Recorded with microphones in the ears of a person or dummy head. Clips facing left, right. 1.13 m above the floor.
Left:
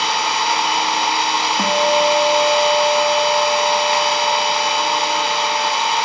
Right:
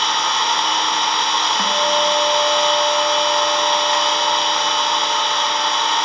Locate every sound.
0.0 s an engine running: 5° left (ahead or behind), 3.5 m
1.6 s a guitar: 20° left (ahead or behind), 1.3 m